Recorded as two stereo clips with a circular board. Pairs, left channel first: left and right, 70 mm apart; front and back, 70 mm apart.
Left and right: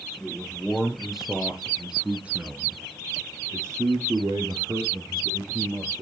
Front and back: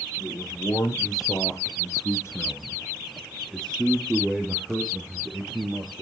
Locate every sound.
0.2 s a man speaking: 5° left, 2.5 m; by 6.0 s 125° right, 2.5 m